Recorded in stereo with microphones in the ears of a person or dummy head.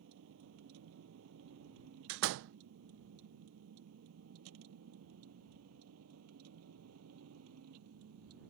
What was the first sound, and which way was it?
A vehicle, 70° right (ahead or behind).